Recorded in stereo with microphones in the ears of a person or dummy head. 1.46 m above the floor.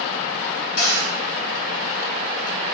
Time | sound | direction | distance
0.8 | a cupboard door | 80° left | 1.2 m